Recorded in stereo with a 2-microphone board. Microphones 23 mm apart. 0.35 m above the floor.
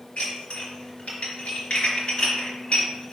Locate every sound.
0.2 s dishes clattering: 55° left (ahead or behind), 3.5 m